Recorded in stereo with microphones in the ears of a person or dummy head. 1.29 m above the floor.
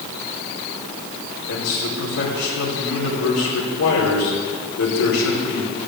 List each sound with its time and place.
1.5 s a man speaking: 85° left, 4.5 m